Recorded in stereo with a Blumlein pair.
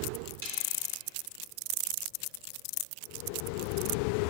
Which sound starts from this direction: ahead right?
A snare drum, at 0.4 s.